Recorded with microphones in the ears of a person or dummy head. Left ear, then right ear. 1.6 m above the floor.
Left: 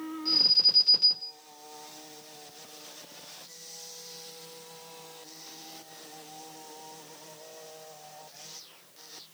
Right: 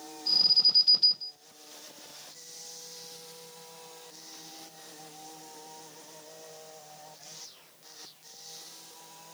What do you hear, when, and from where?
0.2 s an alarm: 55° left (ahead or behind), 1.9 m